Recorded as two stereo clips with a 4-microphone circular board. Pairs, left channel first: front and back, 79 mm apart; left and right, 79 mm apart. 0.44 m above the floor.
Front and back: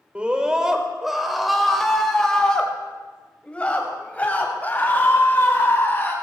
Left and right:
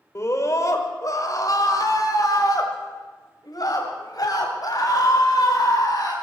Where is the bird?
I don't hear a bird.